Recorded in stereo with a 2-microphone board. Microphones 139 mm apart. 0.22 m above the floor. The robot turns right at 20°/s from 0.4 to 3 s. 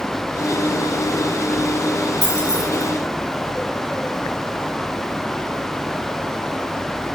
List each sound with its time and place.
2.2 s keys jangling: 50° left (ahead or behind), 1.5 m; by 2.8 s 55° left (ahead or behind), 1.5 m